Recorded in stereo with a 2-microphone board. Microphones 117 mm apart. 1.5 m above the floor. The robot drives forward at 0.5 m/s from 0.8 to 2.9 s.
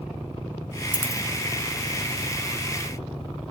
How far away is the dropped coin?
About 1.6 m.